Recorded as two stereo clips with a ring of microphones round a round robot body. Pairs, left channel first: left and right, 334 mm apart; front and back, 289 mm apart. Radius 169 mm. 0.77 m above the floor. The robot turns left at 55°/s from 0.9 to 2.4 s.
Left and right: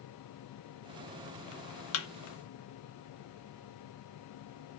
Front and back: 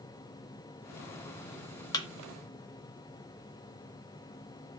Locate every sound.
1.9 s a thud: 70° left, 0.6 m; by 2.1 s 65° left, 0.6 m